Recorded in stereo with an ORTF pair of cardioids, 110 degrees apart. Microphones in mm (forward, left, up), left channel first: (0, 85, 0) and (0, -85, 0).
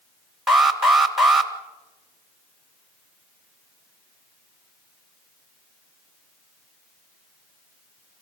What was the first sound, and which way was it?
An alarm, straight ahead.